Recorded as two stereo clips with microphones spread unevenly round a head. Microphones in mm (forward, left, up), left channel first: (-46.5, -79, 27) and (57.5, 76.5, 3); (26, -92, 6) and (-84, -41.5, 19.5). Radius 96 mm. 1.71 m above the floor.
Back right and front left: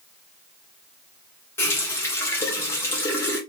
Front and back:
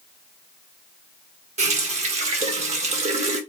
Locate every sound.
1.6 s a running tap: 165° left, 1.8 m